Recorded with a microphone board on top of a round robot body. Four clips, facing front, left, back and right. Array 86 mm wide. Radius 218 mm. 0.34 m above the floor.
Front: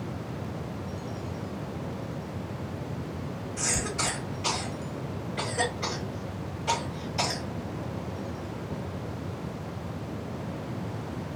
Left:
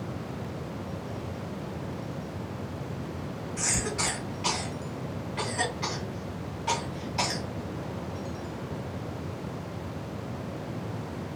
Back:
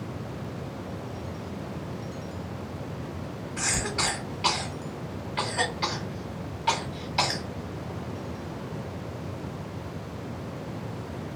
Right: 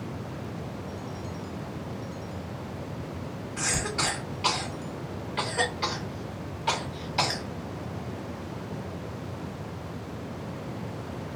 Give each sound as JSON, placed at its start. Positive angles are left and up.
{"t": 3.6, "sound": "a cough", "azimuth_deg": -150, "distance_m": 1.9}